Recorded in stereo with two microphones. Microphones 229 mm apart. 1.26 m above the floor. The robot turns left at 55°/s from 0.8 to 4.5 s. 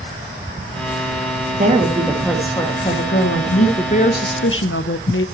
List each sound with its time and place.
1.6 s a woman speaking: 140° right, 2 m; by 3.7 s 105° left, 2 m
3.8 s a woman speaking: 155° left, 0.9 m; by 5.2 s 115° left, 0.9 m